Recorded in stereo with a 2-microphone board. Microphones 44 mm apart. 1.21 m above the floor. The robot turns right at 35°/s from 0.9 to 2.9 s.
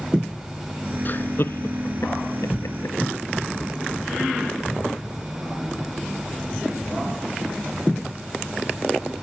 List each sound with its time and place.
1.1 s laughter: 40° left (ahead or behind); by 3.0 s 75° left (ahead or behind)